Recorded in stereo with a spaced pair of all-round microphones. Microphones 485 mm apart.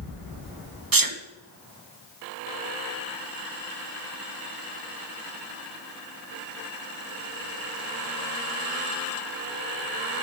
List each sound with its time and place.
0.9 s a sneeze: 40° right (ahead or behind), 1.0 m